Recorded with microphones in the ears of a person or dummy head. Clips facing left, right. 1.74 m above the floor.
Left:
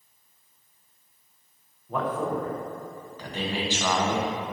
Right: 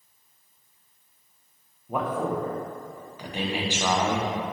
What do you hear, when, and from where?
1.9 s a man speaking: 10° right (ahead or behind), 0.6 m